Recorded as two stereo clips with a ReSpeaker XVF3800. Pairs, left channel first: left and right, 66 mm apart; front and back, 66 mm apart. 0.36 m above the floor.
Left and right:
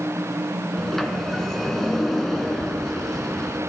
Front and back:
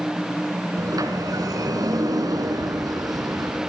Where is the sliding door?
175° left, 2 m.